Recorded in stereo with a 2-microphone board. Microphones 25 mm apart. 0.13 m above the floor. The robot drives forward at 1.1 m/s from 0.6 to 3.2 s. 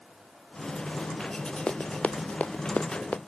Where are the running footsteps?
60° left (ahead or behind); by 3.2 s 70° left (ahead or behind).